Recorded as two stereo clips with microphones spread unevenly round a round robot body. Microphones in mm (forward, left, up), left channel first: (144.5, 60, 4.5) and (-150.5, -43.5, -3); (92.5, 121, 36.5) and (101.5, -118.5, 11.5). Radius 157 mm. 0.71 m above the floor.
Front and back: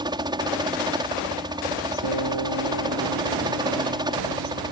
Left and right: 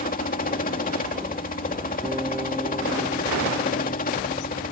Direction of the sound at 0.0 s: 130° left.